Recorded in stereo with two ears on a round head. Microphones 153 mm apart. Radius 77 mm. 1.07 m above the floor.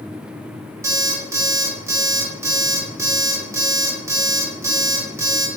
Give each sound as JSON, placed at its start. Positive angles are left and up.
{"t": 0.8, "sound": "an alarm clock", "side_deg": -15, "distance_m": 1.0}